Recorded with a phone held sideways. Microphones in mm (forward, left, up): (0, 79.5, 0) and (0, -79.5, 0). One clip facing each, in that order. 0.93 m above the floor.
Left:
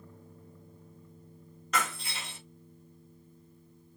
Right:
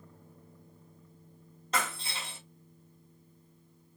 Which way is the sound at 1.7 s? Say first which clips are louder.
Left 1 dB; 30° right (ahead or behind).